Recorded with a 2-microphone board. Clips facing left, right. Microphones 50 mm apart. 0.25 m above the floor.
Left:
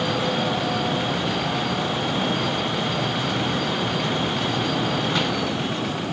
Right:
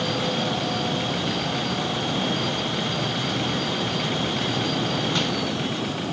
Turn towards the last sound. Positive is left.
No sound to turn to.